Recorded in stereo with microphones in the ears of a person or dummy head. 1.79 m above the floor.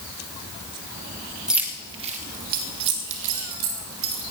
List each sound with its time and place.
1.5 s keys jangling: 5° right (ahead or behind), 1.4 m; by 4.2 s 80° right, 4 m